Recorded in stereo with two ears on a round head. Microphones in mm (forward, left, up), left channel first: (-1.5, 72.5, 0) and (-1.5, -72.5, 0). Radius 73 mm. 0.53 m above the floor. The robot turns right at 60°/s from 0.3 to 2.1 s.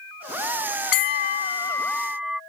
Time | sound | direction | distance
0.9 | a bell | 115° left | ?